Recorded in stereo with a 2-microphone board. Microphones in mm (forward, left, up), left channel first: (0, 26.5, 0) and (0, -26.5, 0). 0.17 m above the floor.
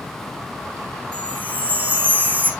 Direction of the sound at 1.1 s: 30° right (ahead or behind).